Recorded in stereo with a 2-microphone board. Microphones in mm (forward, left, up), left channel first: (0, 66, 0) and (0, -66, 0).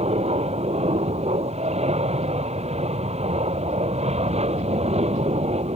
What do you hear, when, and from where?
0.0 s an aircraft: 50° right (ahead or behind)